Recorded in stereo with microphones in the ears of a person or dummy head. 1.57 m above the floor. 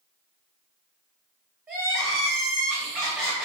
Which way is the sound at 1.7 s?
5° right (ahead or behind).